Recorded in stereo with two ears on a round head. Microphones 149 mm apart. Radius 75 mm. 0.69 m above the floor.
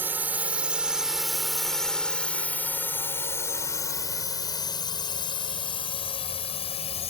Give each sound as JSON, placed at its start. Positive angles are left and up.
{"t": 0.0, "sound": "a drone", "side_deg": -10}